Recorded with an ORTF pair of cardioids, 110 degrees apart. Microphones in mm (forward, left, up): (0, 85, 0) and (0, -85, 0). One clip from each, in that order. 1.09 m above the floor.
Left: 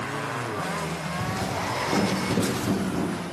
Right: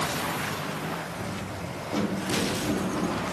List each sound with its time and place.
1.2 s footsteps: 40° left, 3.5 m